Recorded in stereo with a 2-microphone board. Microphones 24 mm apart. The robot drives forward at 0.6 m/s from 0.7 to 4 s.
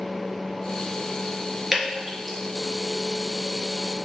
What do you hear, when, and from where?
1.7 s dripping: 5° right (ahead or behind), 2.5 m